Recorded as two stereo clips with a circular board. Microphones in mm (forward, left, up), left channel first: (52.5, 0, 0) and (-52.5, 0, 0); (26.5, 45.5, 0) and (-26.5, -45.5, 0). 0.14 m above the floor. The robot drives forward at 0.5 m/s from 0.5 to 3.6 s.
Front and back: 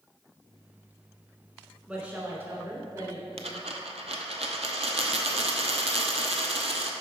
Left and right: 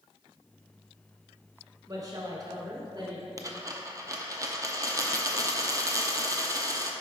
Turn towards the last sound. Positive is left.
turn(degrees=-175)